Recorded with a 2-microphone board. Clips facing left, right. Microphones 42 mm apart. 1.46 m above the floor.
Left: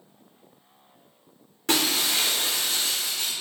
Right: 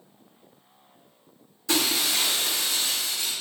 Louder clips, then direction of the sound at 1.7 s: Left 1 dB; 55° left (ahead or behind).